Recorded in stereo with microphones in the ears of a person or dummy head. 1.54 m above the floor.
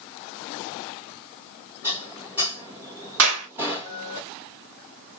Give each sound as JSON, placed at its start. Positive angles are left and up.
{"t": 1.8, "sound": "dishes clattering", "side_deg": -10, "distance_m": 1.2}
{"t": 3.2, "sound": "a clap", "side_deg": -80, "distance_m": 1.7}